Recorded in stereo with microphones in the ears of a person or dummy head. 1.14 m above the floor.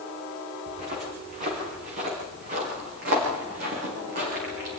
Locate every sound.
0.7 s footsteps: 50° right (ahead or behind), 7.5 m; by 4.7 s 55° right (ahead or behind), 9 m